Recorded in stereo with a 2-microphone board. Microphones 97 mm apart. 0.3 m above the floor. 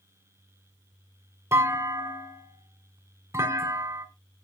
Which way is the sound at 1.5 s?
30° right (ahead or behind).